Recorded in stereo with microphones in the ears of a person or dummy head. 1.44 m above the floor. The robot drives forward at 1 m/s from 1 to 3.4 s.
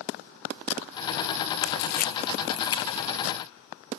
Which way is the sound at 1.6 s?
70° left (ahead or behind).